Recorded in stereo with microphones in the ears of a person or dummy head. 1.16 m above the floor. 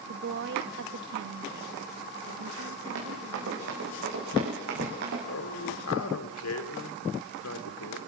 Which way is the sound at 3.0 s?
65° right (ahead or behind).